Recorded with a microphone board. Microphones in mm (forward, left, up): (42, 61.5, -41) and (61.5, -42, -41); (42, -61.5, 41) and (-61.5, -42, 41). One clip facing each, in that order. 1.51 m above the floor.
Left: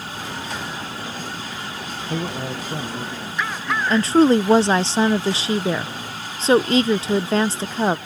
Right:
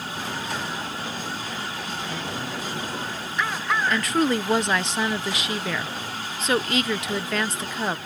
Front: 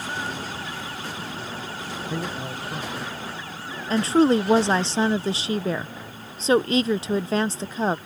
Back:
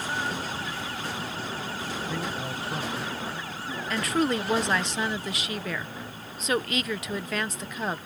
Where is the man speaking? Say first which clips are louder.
Left 4 dB, front 2 dB; 55° left; by 4.5 s 100° left.